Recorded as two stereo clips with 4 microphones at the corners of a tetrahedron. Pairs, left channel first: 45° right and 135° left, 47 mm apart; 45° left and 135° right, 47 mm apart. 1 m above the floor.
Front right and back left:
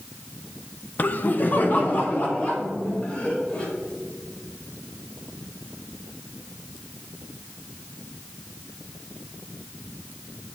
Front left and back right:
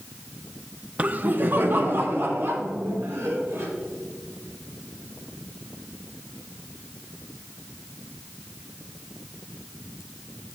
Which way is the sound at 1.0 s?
80° right.